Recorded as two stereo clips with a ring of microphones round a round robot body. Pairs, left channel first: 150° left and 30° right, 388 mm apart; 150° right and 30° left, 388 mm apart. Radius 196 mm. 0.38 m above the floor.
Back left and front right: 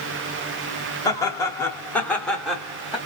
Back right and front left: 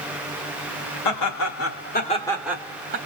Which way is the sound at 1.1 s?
130° right.